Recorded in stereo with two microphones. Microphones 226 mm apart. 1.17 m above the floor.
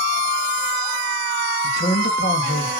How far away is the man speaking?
About 2 m.